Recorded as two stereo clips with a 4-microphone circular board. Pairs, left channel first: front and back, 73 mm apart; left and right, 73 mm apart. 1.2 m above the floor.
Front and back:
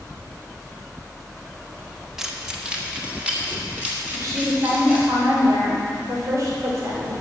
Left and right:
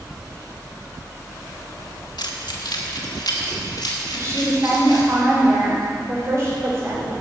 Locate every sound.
2.2 s keys jangling: 95° left, 1.1 m; by 5.1 s 110° left, 3.5 m
4.1 s a woman speaking: 140° right, 3.5 m